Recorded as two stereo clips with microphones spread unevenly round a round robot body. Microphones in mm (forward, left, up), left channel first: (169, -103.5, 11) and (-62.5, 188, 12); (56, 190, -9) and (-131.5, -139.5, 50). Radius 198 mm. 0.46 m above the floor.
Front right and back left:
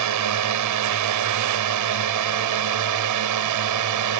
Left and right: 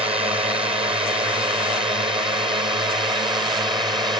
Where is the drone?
160° left; by 4.2 s 155° left.